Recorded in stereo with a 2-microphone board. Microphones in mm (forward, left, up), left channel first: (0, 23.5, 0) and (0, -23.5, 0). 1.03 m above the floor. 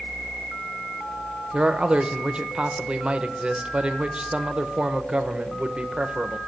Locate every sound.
1.5 s a man speaking: 20° right (ahead or behind), 0.6 m